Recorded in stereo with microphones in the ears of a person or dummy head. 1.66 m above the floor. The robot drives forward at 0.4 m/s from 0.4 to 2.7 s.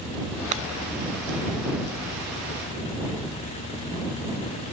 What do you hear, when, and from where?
0.5 s breaking glass: 35° right (ahead or behind)